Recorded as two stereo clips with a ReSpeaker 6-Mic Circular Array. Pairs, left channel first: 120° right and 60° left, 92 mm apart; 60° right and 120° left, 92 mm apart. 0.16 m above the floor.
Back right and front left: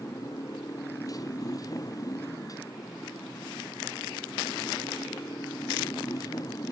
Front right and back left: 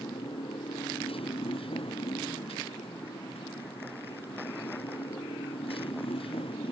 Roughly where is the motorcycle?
Right.